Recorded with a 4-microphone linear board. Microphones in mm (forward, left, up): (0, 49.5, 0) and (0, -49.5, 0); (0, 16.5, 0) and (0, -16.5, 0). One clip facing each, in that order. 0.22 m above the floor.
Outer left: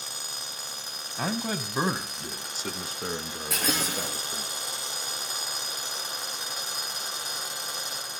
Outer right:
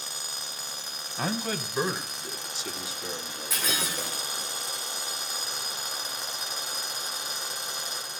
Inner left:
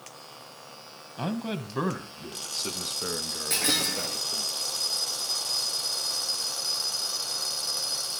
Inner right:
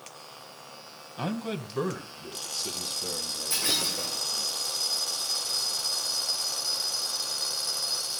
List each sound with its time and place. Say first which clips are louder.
1.2 s a man speaking: even, inner left 1 dB; centre (ahead or behind), 1.0 m; by 4.5 s 75° left (ahead or behind), 3 m
3.5 s breaking glass: outer left 3 dB, inner left 2 dB; 60° left (ahead or behind), 10 m